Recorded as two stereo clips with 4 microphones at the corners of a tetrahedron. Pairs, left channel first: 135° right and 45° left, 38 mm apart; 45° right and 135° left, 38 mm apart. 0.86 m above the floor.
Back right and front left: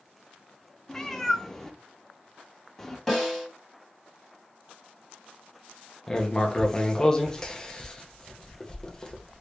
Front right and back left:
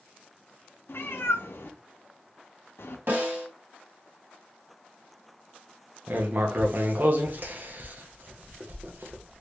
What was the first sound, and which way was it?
A cat meowing, 60° right.